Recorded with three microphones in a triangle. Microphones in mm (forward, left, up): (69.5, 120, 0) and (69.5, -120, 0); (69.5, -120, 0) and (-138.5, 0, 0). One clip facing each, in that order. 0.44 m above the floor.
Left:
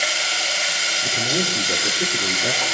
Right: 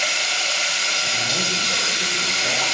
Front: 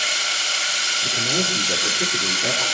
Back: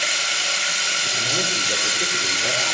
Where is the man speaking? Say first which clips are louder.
Left 6 dB, front 4 dB; 35° left, 4.5 m.